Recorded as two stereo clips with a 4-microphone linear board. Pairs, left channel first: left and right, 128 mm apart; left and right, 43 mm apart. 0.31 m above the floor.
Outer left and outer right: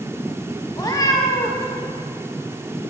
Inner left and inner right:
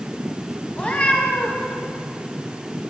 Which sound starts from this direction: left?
A cat meowing, at 0.8 s.